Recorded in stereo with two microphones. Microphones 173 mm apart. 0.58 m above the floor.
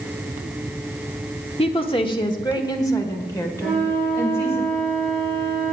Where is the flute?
5° left (ahead or behind), 5 m.